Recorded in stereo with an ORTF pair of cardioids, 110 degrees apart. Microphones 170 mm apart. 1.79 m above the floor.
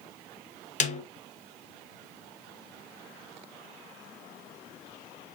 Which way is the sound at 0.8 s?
45° left.